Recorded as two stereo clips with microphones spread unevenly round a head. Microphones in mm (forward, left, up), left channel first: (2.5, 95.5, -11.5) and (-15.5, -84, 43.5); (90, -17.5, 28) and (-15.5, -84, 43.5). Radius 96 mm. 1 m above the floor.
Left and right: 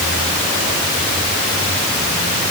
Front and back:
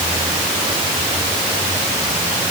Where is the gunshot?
I don't hear a gunshot.